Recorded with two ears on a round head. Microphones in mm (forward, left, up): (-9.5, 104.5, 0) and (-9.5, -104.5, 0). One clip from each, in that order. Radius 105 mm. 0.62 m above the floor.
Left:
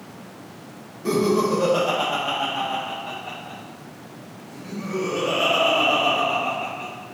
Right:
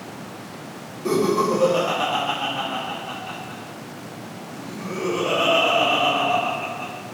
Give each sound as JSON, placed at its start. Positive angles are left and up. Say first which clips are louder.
{"t": 1.1, "sound": "laughter", "louder": "right 1 dB", "side_deg": 0, "distance_m": 1.0}